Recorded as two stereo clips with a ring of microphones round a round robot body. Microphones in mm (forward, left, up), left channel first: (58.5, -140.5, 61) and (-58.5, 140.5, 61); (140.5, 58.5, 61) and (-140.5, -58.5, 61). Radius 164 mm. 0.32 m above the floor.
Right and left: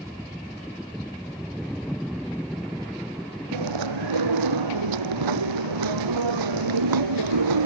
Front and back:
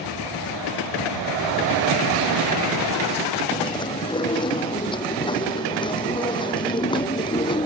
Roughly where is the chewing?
Left.